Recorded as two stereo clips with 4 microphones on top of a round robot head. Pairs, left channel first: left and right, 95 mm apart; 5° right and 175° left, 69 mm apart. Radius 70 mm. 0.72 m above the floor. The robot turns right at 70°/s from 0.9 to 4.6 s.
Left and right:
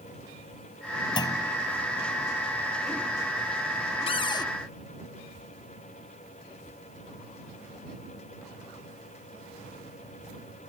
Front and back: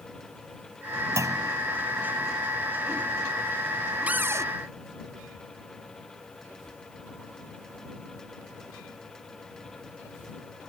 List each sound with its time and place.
1.2 s a clunk: 130° left; by 1.6 s 160° left
4.1 s a cupboard door: 105° left; by 4.5 s 135° left